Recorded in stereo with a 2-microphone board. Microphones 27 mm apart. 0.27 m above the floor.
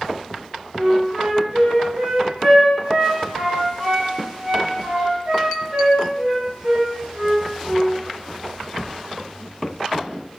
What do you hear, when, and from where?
0.8 s a flute: 40° right (ahead or behind), 1.8 m